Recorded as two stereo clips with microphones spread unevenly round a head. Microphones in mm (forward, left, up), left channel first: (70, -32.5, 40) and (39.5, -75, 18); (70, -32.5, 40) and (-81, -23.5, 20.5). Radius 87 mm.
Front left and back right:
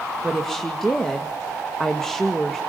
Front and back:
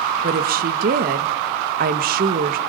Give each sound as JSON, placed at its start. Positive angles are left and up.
{"t": 0.2, "sound": "a woman speaking", "azimuth_deg": 145, "distance_m": 2.0}